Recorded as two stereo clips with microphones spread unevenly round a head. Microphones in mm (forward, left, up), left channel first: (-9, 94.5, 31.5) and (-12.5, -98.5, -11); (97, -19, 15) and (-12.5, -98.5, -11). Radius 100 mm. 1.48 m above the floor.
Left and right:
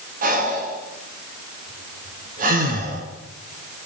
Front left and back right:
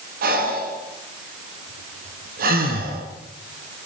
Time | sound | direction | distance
0.2 | breathing | 140° right | 3.5 m